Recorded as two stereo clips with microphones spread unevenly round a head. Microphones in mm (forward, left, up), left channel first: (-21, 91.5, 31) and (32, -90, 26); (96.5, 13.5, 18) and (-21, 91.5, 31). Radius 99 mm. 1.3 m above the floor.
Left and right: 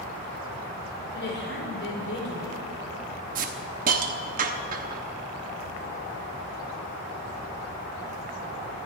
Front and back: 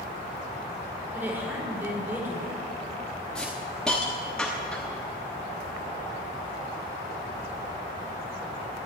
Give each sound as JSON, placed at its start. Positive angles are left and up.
{"t": 1.1, "sound": "a woman speaking", "azimuth_deg": 70, "distance_m": 5.0}
{"t": 3.4, "sound": "a hiss", "azimuth_deg": -120, "distance_m": 1.0}